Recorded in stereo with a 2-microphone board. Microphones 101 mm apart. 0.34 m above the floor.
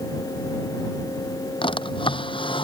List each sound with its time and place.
1.6 s a drawer: 65° left (ahead or behind)